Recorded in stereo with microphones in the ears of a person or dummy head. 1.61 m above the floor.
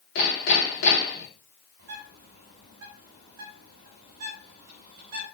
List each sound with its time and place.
0.1 s hammering: 60° left (ahead or behind), 3.5 m
1.8 s a bird: 60° right (ahead or behind), 4.5 m